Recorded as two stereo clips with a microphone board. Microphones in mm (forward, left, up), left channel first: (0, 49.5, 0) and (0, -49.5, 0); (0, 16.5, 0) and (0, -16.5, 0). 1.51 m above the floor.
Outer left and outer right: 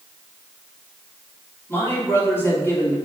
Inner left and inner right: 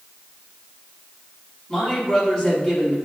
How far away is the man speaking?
About 3 m.